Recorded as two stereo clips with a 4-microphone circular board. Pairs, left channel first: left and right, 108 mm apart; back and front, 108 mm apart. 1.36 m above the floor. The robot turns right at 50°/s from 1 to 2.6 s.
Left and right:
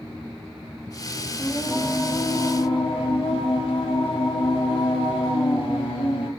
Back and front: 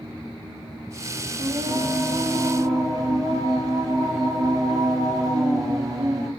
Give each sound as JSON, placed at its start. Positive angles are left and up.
{"t": 1.4, "sound": "singing", "azimuth_deg": 0, "distance_m": 0.7}